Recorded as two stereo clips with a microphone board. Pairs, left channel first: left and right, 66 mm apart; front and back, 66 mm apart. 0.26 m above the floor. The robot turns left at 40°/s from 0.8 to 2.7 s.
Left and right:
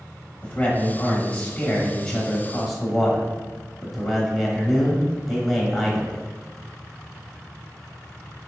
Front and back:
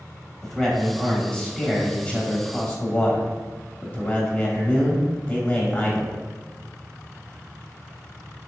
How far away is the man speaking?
About 1.0 m.